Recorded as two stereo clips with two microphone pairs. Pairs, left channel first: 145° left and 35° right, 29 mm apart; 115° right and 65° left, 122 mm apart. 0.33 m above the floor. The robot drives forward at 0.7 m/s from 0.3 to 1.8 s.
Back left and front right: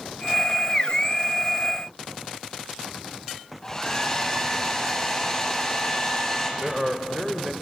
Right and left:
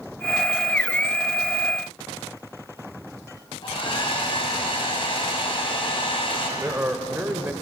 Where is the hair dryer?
150° right, 1.9 m.